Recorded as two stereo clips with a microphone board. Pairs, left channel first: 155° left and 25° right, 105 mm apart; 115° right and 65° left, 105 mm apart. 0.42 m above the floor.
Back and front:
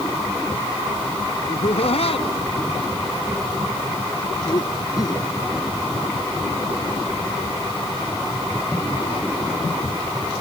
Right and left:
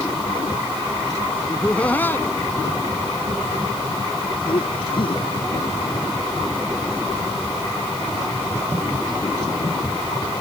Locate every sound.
1.5 s laughter: 165° left; by 5.2 s 150° right